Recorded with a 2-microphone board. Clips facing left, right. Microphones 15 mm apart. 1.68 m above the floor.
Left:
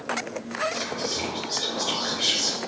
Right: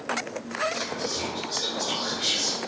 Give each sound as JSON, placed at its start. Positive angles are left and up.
{"t": 0.7, "sound": "whispering", "side_deg": 65, "distance_m": 2.0}